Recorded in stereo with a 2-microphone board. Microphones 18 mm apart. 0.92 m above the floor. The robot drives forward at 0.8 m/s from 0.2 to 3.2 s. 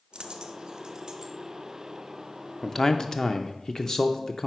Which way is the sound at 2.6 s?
25° left (ahead or behind).